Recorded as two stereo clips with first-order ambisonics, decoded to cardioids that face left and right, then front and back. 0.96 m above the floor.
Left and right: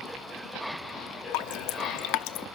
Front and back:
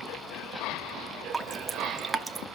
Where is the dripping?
100° left, 1.0 m.